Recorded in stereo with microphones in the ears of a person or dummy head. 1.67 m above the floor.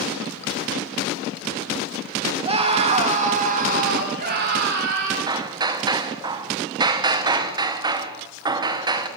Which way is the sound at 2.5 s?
30° right (ahead or behind).